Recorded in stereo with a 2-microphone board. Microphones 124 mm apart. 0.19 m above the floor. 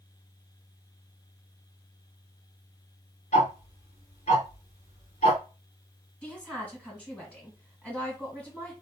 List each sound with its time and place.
3.3 s ticking: 65° left (ahead or behind), 1.3 m
6.2 s a woman speaking: 10° left (ahead or behind), 1.8 m